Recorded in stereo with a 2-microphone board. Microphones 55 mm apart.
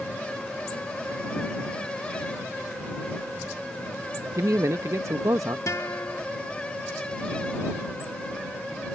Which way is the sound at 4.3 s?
70° right (ahead or behind).